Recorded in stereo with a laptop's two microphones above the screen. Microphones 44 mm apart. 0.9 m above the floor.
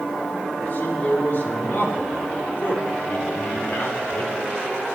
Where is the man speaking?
45° left (ahead or behind), 2 m.